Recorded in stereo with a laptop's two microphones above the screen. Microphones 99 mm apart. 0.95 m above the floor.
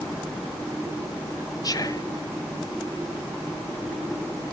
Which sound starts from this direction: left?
Whispering, at 1.6 s.